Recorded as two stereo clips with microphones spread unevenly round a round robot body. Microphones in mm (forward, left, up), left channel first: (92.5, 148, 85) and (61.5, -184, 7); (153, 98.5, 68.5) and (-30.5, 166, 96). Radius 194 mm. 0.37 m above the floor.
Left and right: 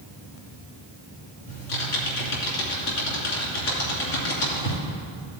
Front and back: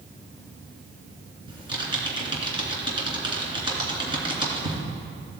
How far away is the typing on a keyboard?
About 3 m.